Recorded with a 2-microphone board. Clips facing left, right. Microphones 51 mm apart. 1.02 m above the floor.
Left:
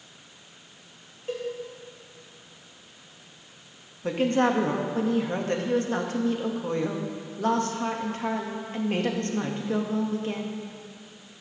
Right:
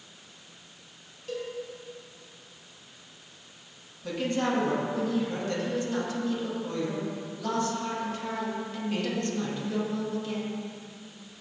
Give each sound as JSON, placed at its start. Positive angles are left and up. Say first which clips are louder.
{"t": 1.3, "sound": "a cowbell", "louder": "left 3 dB", "side_deg": 30, "distance_m": 4.0}
{"t": 4.0, "sound": "a woman speaking", "louder": "left 5 dB", "side_deg": 45, "distance_m": 1.7}